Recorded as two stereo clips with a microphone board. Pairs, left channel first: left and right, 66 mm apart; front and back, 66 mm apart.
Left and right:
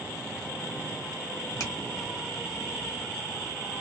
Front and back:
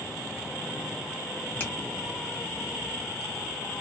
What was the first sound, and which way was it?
A finger snap, 60° left.